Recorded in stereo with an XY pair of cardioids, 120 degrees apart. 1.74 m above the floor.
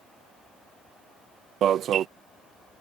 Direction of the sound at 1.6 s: 55° right.